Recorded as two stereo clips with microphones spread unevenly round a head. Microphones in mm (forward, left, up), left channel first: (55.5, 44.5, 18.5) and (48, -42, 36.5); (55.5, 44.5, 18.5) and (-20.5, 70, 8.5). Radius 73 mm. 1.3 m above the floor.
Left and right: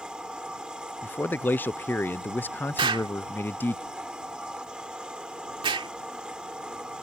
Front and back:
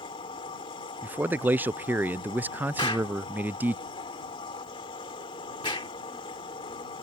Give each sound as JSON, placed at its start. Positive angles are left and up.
{"t": 0.0, "sound": "a machine running", "azimuth_deg": -20}
{"t": 1.0, "sound": "a man speaking", "azimuth_deg": 120}
{"t": 2.8, "sound": "an explosion", "azimuth_deg": -80}